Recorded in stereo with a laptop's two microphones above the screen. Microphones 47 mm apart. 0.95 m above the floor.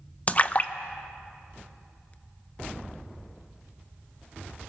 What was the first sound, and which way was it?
A splash, 30° left (ahead or behind).